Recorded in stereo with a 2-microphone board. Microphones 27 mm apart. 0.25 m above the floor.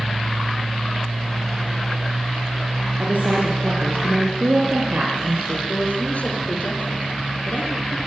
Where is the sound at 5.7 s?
60° left (ahead or behind), 5 m.